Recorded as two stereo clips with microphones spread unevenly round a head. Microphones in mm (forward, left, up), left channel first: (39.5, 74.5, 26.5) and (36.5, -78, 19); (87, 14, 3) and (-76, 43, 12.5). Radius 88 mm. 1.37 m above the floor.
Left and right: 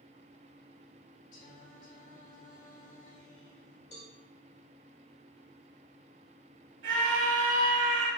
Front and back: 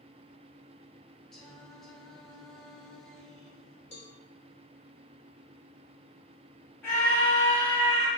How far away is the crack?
No crack in this recording.